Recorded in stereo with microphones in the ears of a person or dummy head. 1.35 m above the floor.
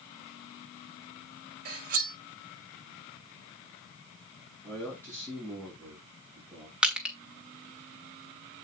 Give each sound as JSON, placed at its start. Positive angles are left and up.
{"t": 1.6, "sound": "cutlery clinking", "side_deg": -50, "distance_m": 1.5}
{"t": 4.6, "sound": "a man speaking", "side_deg": 15, "distance_m": 6.0}
{"t": 6.8, "sound": "crushing", "side_deg": 0, "distance_m": 1.5}